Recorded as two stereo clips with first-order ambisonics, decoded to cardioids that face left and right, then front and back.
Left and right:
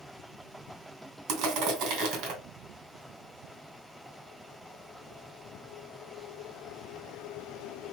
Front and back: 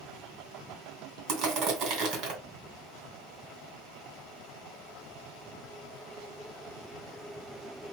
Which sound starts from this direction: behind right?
Crushing, at 1.3 s.